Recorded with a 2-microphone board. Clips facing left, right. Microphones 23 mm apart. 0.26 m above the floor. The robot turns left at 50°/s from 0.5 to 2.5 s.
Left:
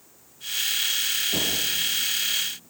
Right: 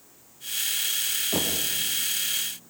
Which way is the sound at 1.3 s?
80° right.